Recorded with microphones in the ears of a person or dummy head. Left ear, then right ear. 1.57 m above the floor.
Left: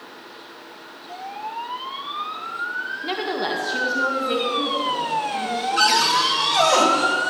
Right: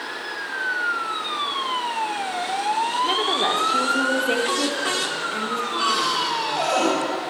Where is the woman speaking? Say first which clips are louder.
Right 3 dB; 5° right (ahead or behind), 1.6 m; by 6.7 s 45° right (ahead or behind), 3.5 m.